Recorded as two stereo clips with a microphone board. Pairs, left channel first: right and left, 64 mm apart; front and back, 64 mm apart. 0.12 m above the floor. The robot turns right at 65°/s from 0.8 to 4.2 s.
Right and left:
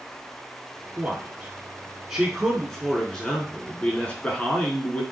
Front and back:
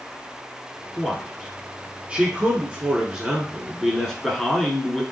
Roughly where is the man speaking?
Left.